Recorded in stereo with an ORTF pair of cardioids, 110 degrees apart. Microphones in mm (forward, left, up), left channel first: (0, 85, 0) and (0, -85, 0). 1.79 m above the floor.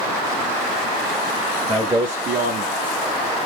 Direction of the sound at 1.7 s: 5° right.